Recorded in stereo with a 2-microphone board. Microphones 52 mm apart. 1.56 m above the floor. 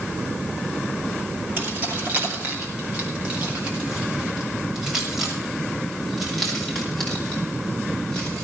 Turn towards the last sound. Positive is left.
turn(degrees=20)  # may be behind; listen again after turning